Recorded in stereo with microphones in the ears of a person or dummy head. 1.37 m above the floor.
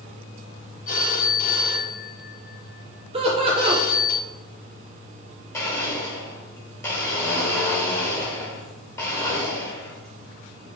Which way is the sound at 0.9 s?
50° left (ahead or behind).